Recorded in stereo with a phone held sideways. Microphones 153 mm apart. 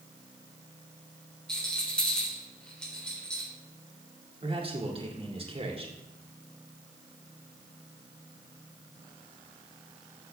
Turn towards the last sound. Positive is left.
turn(degrees=-40)  # may be behind; listen again after turning